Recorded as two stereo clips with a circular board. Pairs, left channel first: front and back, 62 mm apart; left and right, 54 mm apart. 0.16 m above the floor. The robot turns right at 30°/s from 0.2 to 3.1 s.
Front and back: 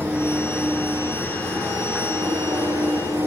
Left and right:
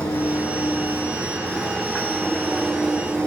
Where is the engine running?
110° left, 5 m; by 3.3 s 160° right, 5 m.